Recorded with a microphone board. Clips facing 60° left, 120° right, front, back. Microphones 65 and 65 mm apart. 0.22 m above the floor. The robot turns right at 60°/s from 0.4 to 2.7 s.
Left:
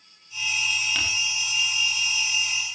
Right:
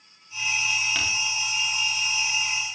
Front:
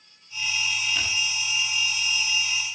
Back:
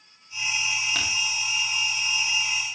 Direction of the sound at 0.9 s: 155° left.